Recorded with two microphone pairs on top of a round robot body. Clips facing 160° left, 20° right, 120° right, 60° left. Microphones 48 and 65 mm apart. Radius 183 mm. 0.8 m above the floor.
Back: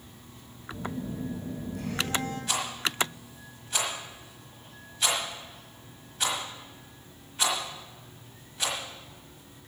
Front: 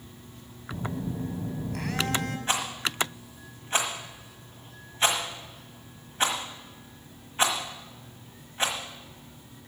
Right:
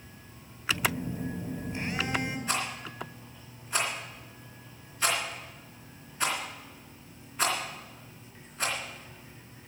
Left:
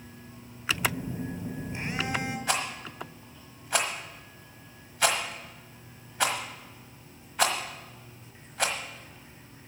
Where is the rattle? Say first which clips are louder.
Front 3 dB, left 2 dB; 40° left, 1.4 m.